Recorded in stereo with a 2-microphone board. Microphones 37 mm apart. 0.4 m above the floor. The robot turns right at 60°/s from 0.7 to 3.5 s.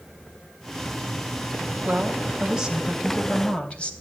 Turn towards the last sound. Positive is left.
turn(degrees=35)